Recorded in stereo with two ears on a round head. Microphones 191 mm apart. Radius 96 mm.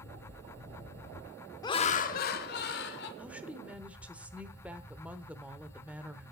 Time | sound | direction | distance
1.6 | laughter | 15° left (ahead or behind) | 0.8 m
3.2 | a woman speaking | 5° right (ahead or behind) | 1.0 m